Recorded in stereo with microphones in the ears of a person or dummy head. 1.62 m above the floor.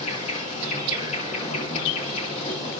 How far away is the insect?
About 6 m.